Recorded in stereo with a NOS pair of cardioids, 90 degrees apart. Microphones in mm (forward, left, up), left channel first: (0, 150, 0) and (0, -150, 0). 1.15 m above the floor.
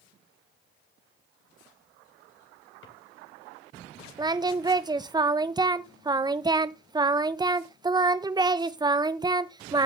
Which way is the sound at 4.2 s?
15° right.